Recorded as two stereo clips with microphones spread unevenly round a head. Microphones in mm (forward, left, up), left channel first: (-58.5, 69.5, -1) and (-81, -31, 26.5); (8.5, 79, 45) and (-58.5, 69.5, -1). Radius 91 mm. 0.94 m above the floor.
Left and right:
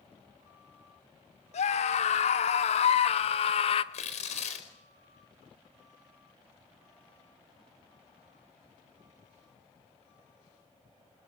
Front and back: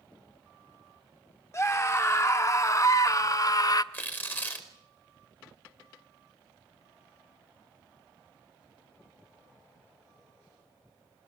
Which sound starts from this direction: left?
Tearing paper, at 3.9 s.